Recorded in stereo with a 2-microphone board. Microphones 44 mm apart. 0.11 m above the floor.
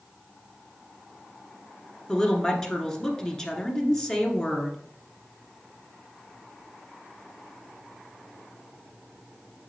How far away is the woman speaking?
About 1.3 m.